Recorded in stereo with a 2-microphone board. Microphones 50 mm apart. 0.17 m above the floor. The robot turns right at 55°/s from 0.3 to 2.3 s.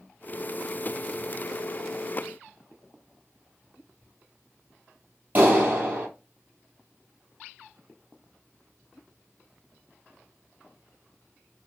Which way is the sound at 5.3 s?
35° right (ahead or behind).